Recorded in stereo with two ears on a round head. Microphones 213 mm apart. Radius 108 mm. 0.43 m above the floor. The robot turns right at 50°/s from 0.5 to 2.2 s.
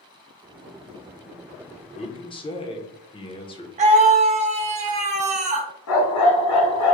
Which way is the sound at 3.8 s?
30° right (ahead or behind).